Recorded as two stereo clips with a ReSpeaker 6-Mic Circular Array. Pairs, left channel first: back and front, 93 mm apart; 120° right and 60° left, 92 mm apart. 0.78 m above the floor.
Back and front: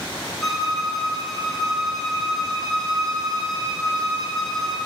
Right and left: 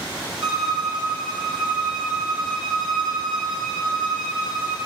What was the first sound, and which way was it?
A violin, 90° left.